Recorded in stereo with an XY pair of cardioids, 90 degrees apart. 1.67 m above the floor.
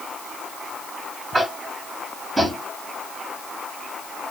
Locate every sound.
1.3 s tapping: 10° right, 1.9 m